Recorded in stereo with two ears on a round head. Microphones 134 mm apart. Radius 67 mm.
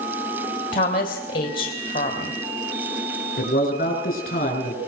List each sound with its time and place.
0.7 s a woman speaking: 60° left (ahead or behind), 3 m
3.4 s a man speaking: 60° left (ahead or behind), 5.5 m